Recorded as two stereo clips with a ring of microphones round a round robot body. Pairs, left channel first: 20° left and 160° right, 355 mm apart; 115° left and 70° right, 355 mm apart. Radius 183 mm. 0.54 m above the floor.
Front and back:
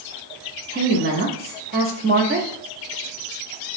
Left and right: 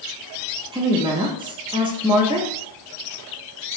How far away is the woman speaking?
About 0.7 m.